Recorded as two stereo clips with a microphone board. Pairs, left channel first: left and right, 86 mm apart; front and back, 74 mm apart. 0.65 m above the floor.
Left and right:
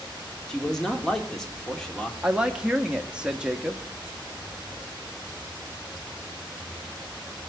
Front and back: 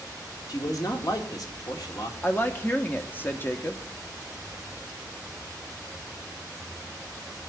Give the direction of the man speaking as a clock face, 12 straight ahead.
12 o'clock.